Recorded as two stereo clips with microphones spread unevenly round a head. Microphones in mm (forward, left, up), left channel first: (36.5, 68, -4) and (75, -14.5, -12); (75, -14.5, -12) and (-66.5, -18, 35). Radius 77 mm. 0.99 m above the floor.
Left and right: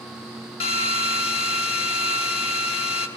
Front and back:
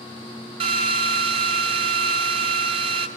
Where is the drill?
130° left, 1.2 m.